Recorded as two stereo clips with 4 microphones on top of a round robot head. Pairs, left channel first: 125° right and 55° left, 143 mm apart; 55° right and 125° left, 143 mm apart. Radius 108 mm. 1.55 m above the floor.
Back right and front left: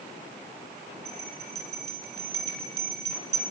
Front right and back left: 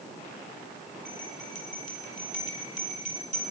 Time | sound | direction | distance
1.1 | a bell | 15° right | 3 m